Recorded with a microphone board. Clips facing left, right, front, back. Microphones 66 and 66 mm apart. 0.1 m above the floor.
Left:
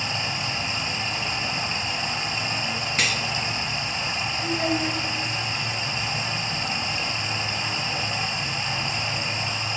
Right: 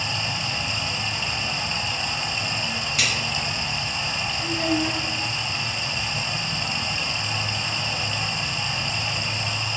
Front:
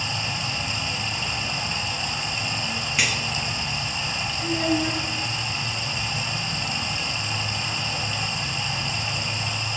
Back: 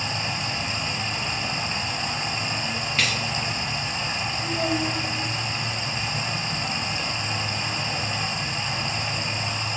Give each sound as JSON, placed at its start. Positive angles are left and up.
{"t": 0.0, "sound": "running water", "azimuth_deg": 140, "distance_m": 1.0}
{"t": 3.0, "sound": "cutlery clinking", "azimuth_deg": 70, "distance_m": 1.0}
{"t": 4.4, "sound": "a child speaking", "azimuth_deg": 5, "distance_m": 1.5}